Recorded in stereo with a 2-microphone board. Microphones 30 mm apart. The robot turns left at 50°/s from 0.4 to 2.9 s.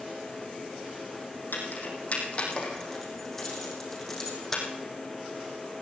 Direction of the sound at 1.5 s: 75° left (ahead or behind).